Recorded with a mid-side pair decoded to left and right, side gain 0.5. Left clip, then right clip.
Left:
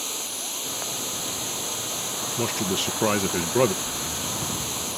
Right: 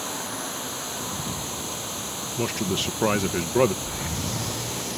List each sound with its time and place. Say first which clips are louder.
0.0 s a machine running: even; 25° left
2.4 s a man speaking: even; straight ahead
3.8 s breathing: left 1 dB; 40° right